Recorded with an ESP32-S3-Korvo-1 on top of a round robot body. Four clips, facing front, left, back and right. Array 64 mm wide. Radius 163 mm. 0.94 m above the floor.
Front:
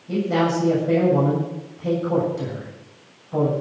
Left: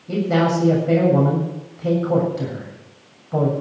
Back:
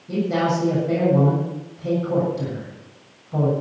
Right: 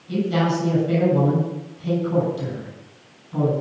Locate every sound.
0.1 s a man speaking: 85° left, 7.5 m